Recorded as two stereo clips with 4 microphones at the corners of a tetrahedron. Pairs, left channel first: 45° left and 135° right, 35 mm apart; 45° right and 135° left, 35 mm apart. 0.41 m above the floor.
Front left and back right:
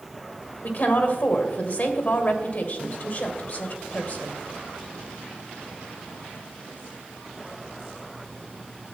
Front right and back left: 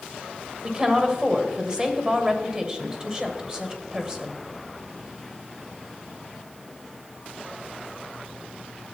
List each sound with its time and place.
0.6 s a woman speaking: 70° left, 1.7 m